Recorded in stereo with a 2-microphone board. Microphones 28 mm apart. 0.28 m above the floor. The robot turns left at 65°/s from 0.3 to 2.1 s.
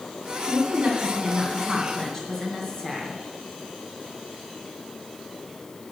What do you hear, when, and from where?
0.4 s a woman speaking: 90° right, 2.5 m; by 3.2 s 155° left, 2.5 m